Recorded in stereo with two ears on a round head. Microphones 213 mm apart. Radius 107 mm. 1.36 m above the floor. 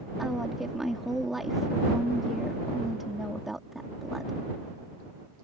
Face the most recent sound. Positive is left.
turn(degrees=0)  # may be behind; listen again after turning